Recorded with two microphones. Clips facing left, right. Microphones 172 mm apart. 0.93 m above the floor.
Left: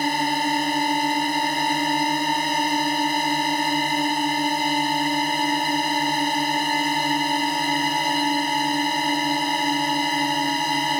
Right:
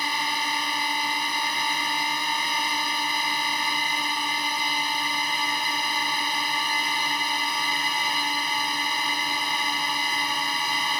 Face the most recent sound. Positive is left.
turn(degrees=45)  # may be behind; listen again after turning